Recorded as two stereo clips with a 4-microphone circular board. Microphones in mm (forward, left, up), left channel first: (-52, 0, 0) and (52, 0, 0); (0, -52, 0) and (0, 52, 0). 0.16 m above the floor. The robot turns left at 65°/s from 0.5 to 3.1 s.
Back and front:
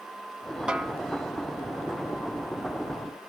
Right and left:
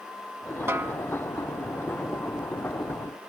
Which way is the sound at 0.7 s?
70° left.